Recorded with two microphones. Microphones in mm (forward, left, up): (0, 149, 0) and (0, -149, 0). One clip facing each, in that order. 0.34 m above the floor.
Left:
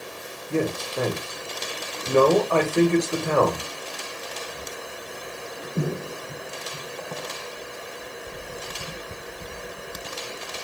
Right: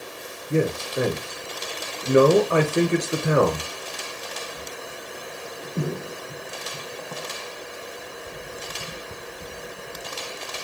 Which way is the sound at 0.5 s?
20° right (ahead or behind).